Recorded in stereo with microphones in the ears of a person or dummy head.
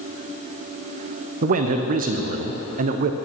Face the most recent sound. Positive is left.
turn(degrees=-40)  # may be behind; listen again after turning